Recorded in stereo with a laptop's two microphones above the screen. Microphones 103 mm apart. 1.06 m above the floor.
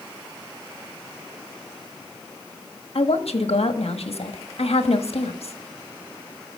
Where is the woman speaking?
80° left, 1.3 m.